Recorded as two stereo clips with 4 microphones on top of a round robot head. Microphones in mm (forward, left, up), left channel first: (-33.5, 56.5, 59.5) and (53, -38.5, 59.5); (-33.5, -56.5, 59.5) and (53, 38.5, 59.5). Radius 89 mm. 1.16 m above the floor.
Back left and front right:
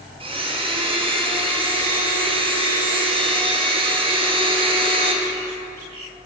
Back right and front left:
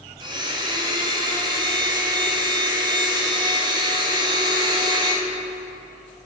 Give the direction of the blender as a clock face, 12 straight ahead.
12 o'clock.